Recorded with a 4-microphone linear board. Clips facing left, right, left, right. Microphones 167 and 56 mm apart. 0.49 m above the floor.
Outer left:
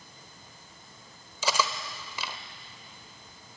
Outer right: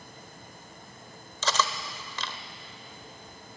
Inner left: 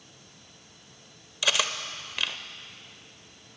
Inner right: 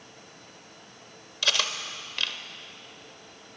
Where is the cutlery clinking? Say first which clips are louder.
Even, inner left 1 dB; 10° left (ahead or behind), 0.8 m.